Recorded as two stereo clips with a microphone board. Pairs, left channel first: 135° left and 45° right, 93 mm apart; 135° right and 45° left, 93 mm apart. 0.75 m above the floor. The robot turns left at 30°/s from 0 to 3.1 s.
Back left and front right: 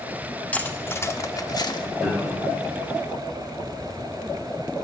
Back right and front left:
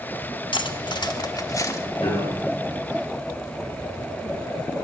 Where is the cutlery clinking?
150° right, 1.0 m; by 1.9 s 170° left, 1.0 m.